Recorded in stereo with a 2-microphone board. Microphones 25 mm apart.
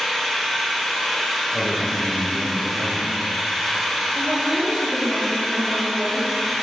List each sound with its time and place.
0.0 s an engine running: 10° right (ahead or behind), 2.0 m
1.5 s a man speaking: 35° right (ahead or behind), 1.3 m
4.2 s a woman speaking: 55° right (ahead or behind), 2 m